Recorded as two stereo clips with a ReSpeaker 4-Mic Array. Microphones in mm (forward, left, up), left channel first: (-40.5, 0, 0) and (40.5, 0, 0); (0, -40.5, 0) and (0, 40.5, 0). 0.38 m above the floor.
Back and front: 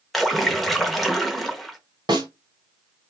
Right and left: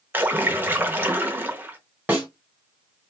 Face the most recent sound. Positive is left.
turn(degrees=20)